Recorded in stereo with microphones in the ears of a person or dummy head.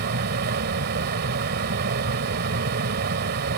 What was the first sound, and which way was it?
A fan, 55° right (ahead or behind).